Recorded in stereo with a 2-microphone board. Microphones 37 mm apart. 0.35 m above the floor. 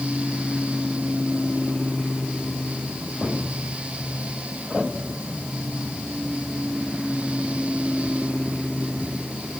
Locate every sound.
Only background noise.